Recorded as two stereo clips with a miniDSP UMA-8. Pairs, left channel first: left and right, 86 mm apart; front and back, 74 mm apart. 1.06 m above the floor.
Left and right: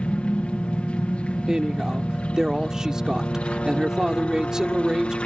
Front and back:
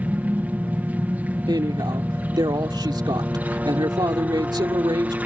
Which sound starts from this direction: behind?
A woman speaking, at 1.5 s.